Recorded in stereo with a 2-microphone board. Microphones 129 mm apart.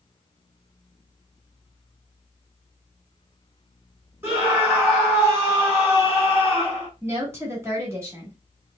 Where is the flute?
No flute in this recording.